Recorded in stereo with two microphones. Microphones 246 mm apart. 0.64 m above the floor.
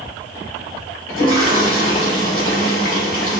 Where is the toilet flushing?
60° left (ahead or behind), 1.3 m.